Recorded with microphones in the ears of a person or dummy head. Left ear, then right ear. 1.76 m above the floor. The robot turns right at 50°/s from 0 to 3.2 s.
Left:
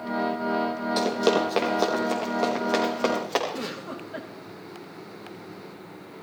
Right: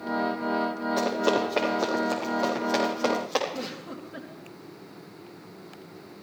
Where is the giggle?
30° left (ahead or behind), 2.5 m.